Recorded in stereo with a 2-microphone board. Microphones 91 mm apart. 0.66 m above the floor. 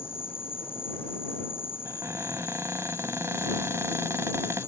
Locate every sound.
0.0 s an insect: 80° left
1.9 s a cupboard door: 30° right (ahead or behind)